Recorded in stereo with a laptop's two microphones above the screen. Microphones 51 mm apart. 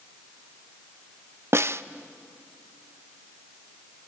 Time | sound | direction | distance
1.5 | a snare drum | 55° right (ahead or behind) | 0.5 m